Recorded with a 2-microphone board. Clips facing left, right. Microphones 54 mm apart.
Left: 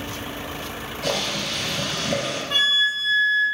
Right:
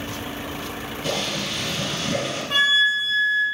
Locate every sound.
1.0 s boiling: 80° left, 4 m
2.5 s a flute: 10° right (ahead or behind), 3 m